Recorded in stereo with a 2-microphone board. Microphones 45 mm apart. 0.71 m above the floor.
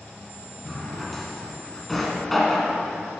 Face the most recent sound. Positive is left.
turn(degrees=5)  # may be behind; listen again after turning